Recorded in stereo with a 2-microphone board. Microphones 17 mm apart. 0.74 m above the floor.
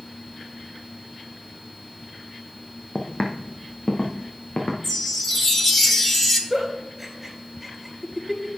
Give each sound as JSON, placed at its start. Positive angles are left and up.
{"t": 3.0, "sound": "footsteps", "side_deg": 65, "distance_m": 1.6}
{"t": 4.8, "sound": "a chime", "side_deg": 20, "distance_m": 1.3}
{"t": 6.5, "sound": "a giggle", "side_deg": -15, "distance_m": 4.0}